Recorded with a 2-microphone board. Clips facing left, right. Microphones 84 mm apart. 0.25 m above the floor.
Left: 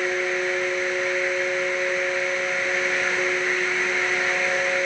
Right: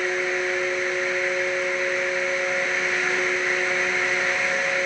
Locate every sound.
Only background noise.